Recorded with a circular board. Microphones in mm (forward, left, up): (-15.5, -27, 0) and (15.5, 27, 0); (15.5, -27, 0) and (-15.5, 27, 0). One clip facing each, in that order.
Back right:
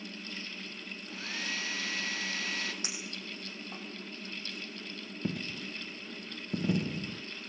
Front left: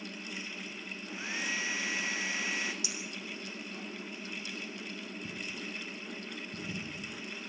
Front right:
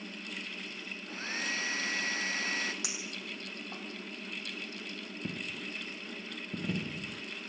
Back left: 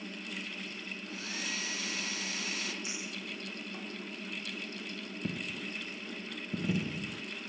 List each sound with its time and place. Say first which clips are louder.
1.1 s a hair dryer: front left 2 dB, front right 4 dB; 10° right, 1.5 m
2.8 s a clink: front left 1 dB, back left 1 dB; 70° right, 5.5 m
5.2 s a dropped coin: back right 8 dB, back left 2 dB; 155° right, 0.7 m